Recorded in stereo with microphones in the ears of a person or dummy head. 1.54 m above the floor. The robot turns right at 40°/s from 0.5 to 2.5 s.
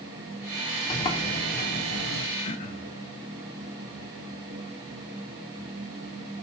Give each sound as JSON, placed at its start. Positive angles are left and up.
{"t": 0.9, "sound": "a sliding door", "azimuth_deg": 25, "distance_m": 3.0}
{"t": 2.4, "sound": "throat clearing", "side_deg": 35, "distance_m": 1.6}